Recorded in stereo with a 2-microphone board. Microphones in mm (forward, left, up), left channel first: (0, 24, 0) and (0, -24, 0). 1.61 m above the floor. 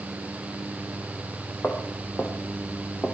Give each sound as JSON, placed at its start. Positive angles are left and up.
{"t": 1.6, "sound": "footsteps", "side_deg": 50, "distance_m": 4.0}